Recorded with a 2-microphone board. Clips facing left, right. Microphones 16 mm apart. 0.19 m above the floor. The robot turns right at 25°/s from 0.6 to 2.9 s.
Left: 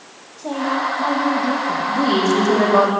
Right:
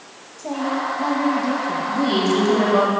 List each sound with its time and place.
0.4 s a woman speaking: 60° left (ahead or behind), 8 m; by 1.8 s 30° left (ahead or behind), 8 m
1.9 s a woman speaking: 45° left (ahead or behind), 9 m; by 2.9 s 70° left (ahead or behind), 9 m